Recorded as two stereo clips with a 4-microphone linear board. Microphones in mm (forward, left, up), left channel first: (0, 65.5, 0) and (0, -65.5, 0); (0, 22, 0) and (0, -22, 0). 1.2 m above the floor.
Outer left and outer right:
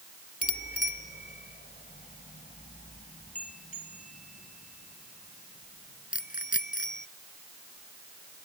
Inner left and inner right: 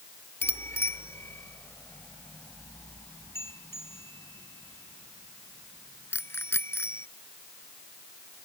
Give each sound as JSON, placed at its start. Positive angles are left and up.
{"t": 0.4, "sound": "a bicycle bell", "side_deg": 85}